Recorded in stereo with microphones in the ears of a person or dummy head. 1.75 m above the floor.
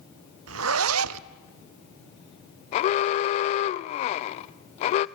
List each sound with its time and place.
0.5 s a zipper: 85° right, 0.6 m
2.7 s an alarm: 40° left (ahead or behind), 0.6 m